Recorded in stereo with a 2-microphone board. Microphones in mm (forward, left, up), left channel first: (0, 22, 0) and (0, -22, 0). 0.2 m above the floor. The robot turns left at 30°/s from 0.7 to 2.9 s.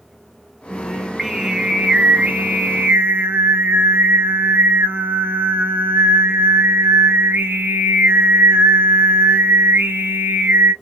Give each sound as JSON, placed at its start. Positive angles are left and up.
{"t": 0.7, "sound": "singing", "azimuth_deg": 5, "distance_m": 0.7}